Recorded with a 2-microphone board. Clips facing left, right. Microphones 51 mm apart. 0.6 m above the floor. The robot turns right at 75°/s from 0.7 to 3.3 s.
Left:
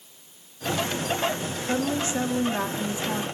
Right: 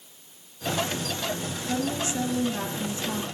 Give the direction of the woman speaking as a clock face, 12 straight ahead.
10 o'clock.